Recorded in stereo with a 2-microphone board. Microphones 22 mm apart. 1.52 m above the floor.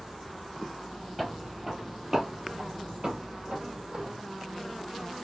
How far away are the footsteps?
About 2.0 m.